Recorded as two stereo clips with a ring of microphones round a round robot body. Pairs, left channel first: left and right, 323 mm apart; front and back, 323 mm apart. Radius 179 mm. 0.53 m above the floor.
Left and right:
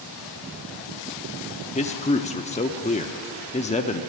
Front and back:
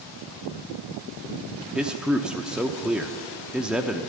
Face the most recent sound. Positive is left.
turn(degrees=100)